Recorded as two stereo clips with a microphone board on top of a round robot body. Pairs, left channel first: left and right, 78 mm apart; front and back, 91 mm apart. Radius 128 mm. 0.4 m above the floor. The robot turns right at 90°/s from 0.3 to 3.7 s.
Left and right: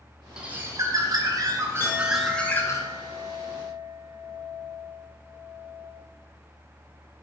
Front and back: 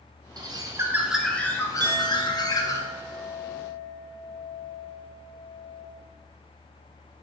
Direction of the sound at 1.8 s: 145° left.